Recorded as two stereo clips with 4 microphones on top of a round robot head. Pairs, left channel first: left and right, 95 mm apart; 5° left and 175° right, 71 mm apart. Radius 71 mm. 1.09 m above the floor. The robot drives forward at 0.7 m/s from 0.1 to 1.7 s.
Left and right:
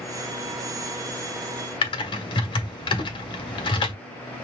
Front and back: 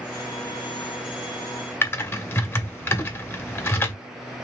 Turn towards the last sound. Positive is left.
turn(degrees=60)